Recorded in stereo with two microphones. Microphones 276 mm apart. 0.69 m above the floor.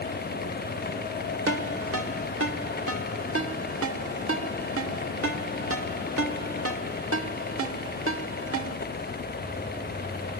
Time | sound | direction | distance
1.5 | a ringtone | 55° right (ahead or behind) | 1.5 m